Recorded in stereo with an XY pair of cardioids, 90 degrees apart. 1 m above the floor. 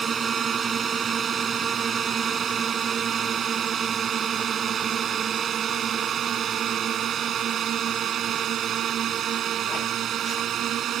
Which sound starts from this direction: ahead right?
A drone, at 0.0 s.